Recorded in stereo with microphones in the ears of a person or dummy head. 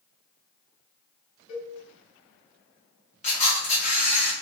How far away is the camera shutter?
About 1.0 m.